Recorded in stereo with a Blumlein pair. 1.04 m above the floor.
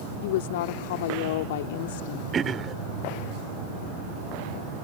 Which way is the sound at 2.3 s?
20° right.